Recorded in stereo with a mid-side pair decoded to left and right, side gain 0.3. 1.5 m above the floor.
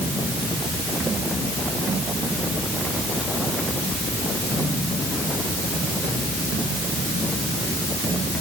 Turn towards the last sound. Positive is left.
No sound to turn to.